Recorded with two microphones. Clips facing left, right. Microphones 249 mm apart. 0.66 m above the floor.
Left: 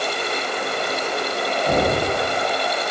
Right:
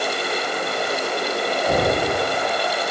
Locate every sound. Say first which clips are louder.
1.7 s knocking: left 1 dB; 25° left (ahead or behind), 5 m